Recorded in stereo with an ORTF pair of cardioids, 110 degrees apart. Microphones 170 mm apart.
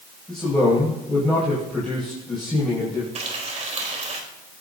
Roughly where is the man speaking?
Ahead.